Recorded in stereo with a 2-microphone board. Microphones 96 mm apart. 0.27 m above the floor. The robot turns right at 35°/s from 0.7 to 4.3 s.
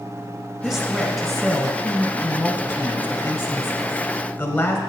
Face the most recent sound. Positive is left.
turn(degrees=20)  # may be behind; listen again after turning